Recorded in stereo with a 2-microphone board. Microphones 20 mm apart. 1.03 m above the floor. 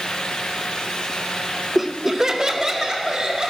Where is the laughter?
10° right (ahead or behind), 0.5 m; by 3.5 s 35° right (ahead or behind), 2.5 m.